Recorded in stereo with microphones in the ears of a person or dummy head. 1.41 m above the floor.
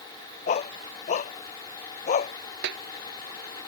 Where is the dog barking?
40° left (ahead or behind); by 2.3 s 45° left (ahead or behind).